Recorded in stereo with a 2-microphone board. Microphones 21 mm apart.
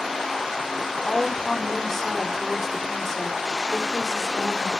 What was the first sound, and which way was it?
A woman speaking, 20° left (ahead or behind).